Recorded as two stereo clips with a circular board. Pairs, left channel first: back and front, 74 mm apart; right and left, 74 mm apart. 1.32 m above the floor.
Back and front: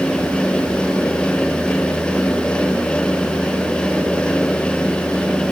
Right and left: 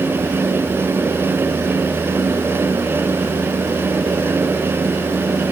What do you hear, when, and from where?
Only background noise.